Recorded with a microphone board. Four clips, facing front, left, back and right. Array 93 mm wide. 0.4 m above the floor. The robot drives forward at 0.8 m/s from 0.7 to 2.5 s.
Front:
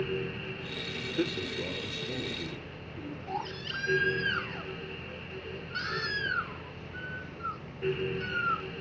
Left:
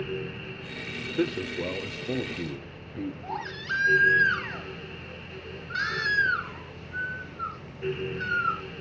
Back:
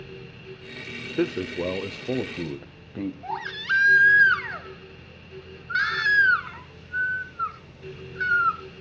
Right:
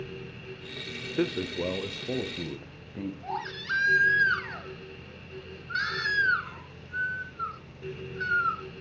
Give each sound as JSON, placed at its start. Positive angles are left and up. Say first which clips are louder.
{"t": 1.2, "sound": "a man speaking", "louder": "even, back 7 dB", "azimuth_deg": -170, "distance_m": 0.8}
{"t": 3.2, "sound": "a baby crying", "louder": "even, back 5 dB", "azimuth_deg": 175, "distance_m": 3.5}